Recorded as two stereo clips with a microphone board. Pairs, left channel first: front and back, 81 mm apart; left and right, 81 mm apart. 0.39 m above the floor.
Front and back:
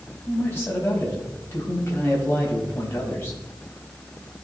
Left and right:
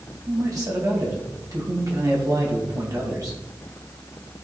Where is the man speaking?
60° right, 3 m.